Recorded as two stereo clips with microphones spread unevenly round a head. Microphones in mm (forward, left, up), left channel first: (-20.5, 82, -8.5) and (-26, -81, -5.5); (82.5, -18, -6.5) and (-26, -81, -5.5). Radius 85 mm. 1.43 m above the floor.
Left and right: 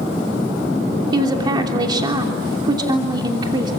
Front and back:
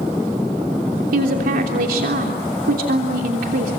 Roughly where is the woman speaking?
Behind right.